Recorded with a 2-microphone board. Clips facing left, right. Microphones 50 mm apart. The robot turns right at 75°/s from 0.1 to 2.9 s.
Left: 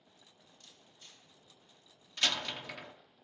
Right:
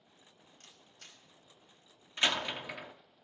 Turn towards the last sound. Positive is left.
turn(degrees=-10)  # may be behind; listen again after turning